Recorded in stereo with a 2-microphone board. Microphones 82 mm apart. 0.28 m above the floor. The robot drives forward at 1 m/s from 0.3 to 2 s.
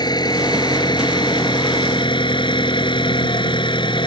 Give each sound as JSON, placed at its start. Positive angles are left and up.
{"t": 0.0, "sound": "an engine running", "side_deg": 55}